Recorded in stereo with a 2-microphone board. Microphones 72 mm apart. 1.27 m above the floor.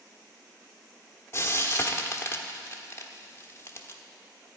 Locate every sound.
1.3 s frying: 35° left (ahead or behind), 1.0 m